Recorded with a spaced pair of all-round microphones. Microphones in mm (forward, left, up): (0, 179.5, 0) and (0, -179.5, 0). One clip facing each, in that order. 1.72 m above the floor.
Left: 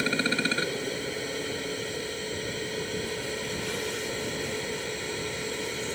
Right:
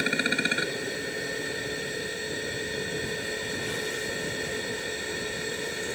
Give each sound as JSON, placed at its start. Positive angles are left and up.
{"t": 0.0, "sound": "a machine running", "side_deg": 5}